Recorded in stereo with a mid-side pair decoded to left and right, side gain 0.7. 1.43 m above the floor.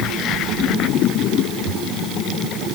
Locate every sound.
Only background noise.